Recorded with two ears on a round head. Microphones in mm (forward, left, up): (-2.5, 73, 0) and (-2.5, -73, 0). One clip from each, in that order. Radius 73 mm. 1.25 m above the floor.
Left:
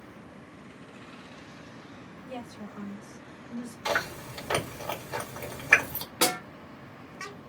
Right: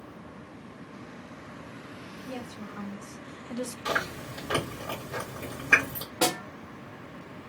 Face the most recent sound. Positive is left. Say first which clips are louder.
# even
turn(degrees=55)  # may be behind; listen again after turning